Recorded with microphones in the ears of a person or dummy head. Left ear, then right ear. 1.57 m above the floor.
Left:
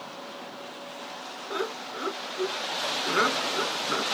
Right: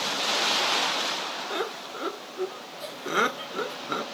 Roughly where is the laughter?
Centre.